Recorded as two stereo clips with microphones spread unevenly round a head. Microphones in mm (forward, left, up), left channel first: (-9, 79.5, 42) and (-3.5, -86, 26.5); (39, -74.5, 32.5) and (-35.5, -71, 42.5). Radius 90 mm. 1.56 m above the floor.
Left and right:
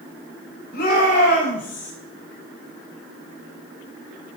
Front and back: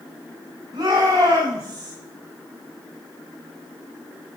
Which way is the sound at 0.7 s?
125° left.